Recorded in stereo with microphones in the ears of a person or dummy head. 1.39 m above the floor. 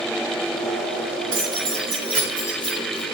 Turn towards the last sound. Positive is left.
turn(degrees=-20)  # may be behind; listen again after turning